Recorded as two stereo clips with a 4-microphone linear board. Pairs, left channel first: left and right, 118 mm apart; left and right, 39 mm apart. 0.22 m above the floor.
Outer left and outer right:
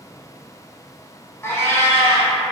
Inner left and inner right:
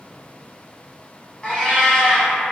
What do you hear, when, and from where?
1.4 s a cat meowing: 25° left (ahead or behind), 0.9 m